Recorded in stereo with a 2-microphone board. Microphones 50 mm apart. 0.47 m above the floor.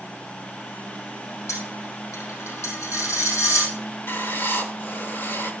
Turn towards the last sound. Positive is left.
turn(degrees=50)  # may be behind; listen again after turning